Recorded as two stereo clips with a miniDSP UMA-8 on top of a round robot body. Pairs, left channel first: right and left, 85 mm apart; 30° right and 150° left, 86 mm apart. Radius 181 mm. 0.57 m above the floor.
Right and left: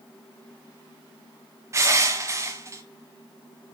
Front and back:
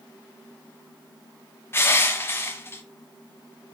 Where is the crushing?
30° left, 1.3 m.